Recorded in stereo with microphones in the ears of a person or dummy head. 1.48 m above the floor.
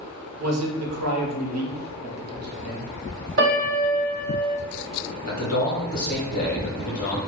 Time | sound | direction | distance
0.4 | a man speaking | 80° right | 1.0 m
3.4 | a piano | 55° right (ahead or behind) | 1.3 m
5.2 | a man speaking | 45° left (ahead or behind) | 1.4 m